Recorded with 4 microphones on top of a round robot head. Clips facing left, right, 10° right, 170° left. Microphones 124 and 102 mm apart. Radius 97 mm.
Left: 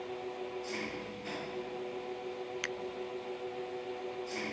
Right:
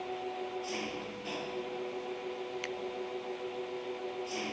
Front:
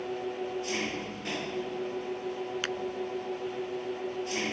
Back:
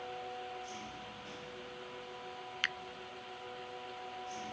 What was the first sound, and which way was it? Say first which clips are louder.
An engine running: right 2 dB, front 9 dB; 10° right.